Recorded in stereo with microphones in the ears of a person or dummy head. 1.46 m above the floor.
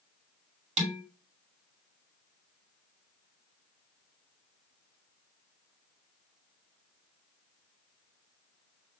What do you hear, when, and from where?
0.8 s dishes clattering: 40° right (ahead or behind), 2 m